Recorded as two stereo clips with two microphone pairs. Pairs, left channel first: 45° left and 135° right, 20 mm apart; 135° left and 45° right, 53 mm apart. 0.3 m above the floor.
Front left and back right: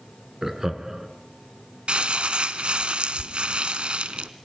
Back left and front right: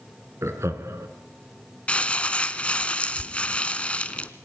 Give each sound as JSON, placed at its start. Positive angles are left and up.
{"t": 0.4, "sound": "laughter", "azimuth_deg": -70, "distance_m": 3.0}
{"t": 1.9, "sound": "crumpling", "azimuth_deg": -155, "distance_m": 1.0}